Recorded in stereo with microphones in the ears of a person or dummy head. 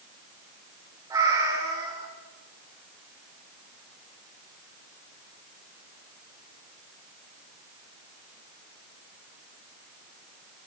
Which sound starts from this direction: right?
A cat meowing, at 1.1 s.